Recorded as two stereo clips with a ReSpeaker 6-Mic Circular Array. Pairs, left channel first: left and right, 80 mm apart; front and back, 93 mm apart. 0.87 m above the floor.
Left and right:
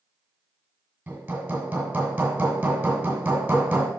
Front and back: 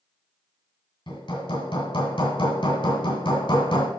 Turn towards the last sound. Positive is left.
turn(degrees=-20)